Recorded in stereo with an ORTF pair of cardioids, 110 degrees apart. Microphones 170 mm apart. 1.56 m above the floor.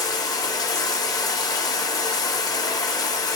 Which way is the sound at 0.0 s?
20° left.